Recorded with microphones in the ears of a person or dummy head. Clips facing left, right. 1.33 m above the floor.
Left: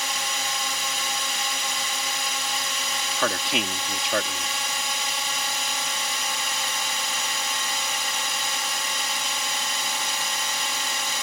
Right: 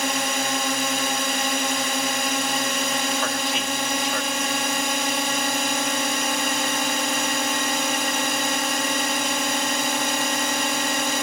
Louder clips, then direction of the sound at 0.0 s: Right 8 dB; 45° right (ahead or behind).